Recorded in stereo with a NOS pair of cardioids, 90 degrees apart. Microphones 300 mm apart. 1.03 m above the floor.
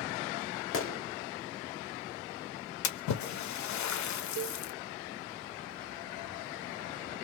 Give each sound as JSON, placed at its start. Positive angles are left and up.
{"t": 0.7, "sound": "a gunshot", "azimuth_deg": 45, "distance_m": 1.6}
{"t": 2.8, "sound": "a splash", "azimuth_deg": 65, "distance_m": 1.0}
{"t": 4.4, "sound": "a cowbell", "azimuth_deg": -55, "distance_m": 0.7}